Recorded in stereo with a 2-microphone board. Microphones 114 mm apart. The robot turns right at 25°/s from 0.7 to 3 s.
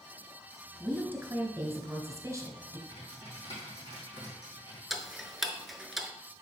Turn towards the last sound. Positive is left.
turn(degrees=0)  # may be behind; listen again after turning